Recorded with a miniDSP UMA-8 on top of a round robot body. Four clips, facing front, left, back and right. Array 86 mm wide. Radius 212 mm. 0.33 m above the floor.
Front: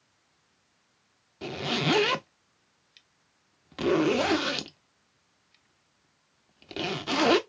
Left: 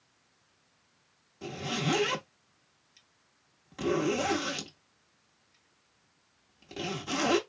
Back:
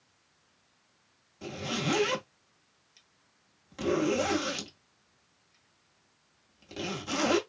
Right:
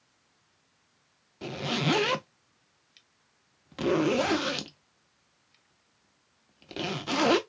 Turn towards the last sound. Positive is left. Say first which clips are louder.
# right 3 dB, front 4 dB
turn(degrees=-30)